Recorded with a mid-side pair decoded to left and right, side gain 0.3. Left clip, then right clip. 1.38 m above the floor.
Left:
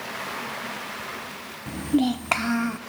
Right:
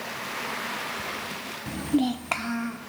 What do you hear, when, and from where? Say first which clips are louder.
1.7 s a child speaking: left 2 dB; 10° right, 0.7 m; by 2.8 s 65° left, 1.2 m